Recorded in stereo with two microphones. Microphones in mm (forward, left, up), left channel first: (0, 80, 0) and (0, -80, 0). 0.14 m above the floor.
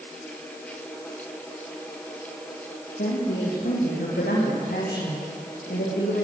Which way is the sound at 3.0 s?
75° left (ahead or behind).